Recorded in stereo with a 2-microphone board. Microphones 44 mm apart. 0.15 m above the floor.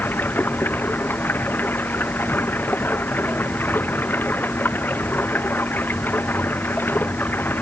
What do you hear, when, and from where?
0.0 s running water: 45° left (ahead or behind)